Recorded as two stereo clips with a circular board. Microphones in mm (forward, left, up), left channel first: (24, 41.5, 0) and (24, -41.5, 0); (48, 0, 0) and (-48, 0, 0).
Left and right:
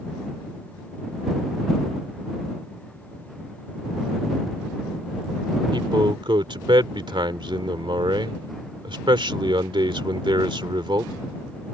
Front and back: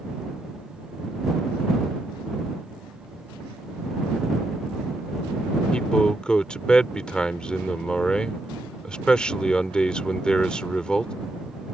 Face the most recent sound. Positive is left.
turn(degrees=-80)